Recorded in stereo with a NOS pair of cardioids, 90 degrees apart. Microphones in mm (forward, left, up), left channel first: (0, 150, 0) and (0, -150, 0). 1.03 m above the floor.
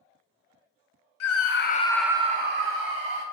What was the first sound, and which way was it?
A scream, 60° left.